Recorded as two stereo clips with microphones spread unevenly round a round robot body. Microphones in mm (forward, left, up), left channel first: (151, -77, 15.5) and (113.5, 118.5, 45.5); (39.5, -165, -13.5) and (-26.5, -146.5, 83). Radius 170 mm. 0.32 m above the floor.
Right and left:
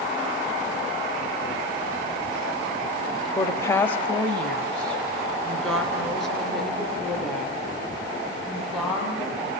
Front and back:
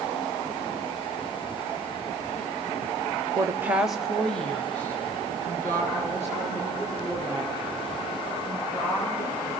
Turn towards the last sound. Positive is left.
turn(degrees=15)